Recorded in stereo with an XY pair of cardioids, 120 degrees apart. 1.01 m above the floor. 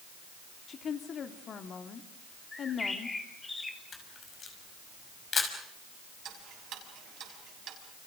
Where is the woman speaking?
45° left, 2.5 m.